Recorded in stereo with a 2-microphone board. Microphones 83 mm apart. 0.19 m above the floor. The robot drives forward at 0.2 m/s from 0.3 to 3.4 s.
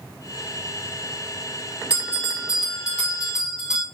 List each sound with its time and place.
1.9 s a bell: 15° right (ahead or behind), 1.1 m; by 3.8 s 10° right (ahead or behind), 1.2 m